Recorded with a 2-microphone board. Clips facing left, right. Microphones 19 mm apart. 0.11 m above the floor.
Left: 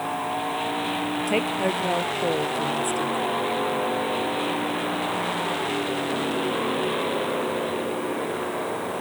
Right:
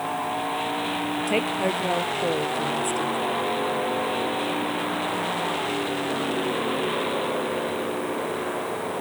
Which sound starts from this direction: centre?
A woman speaking, at 1.3 s.